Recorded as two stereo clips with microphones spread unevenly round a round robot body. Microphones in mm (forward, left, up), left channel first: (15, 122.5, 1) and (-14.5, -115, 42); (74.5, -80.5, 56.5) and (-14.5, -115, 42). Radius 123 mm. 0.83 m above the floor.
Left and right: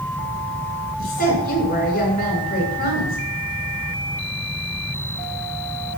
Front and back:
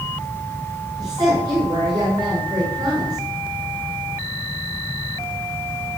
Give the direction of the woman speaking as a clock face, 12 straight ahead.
7 o'clock.